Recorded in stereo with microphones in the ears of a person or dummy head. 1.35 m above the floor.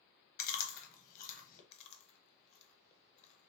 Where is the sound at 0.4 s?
40° left (ahead or behind), 1.0 m.